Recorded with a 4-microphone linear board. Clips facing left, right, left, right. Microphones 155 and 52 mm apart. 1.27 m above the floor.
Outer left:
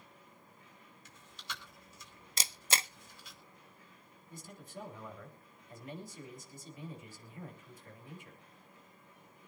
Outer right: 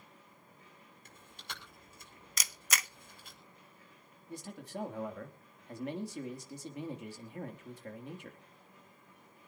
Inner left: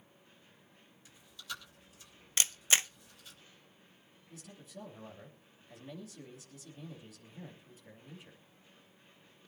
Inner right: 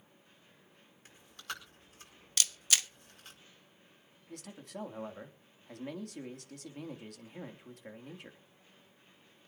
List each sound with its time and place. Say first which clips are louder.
1.1 s chewing: outer left 1 dB, inner right 2 dB; 55° right (ahead or behind), 5 m
2.4 s a camera shutter: outer left 2 dB, inner left 2 dB; 30° left (ahead or behind), 0.5 m
4.3 s a man speaking: outer right 6 dB, inner right 5 dB; 75° right (ahead or behind), 3 m